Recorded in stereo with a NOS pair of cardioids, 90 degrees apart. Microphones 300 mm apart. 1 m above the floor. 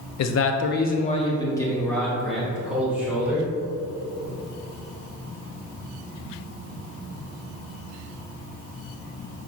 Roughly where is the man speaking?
Ahead left.